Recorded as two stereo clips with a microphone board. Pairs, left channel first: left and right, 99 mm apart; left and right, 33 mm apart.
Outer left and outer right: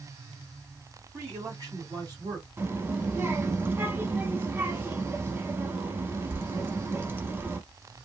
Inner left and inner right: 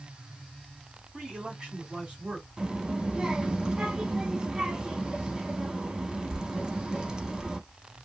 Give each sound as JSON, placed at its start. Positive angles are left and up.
{"t": 1.1, "sound": "a man speaking", "side_deg": -25, "distance_m": 1.9}
{"t": 2.6, "sound": "a child speaking", "side_deg": -20, "distance_m": 0.7}